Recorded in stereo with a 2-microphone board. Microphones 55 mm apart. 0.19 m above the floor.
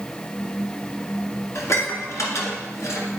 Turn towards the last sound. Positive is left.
turn(degrees=65)  # may be behind; listen again after turning